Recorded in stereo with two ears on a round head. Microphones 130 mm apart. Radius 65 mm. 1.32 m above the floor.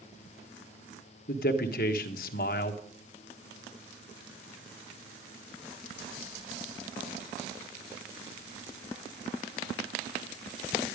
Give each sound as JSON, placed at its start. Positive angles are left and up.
{"t": 1.3, "sound": "a man speaking", "side_deg": 65, "distance_m": 1.2}